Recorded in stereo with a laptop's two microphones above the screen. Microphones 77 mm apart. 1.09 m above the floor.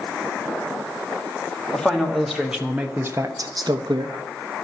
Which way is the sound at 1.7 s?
10° left (ahead or behind).